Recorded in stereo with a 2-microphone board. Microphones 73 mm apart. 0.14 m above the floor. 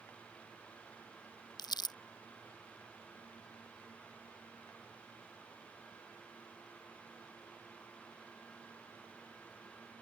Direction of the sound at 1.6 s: 80° left.